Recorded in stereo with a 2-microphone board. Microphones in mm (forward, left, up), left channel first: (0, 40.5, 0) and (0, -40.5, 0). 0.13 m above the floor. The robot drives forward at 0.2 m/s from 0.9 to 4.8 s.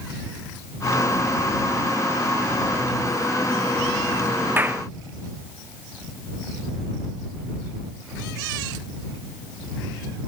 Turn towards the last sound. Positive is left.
turn(degrees=-25)  # may be behind; listen again after turning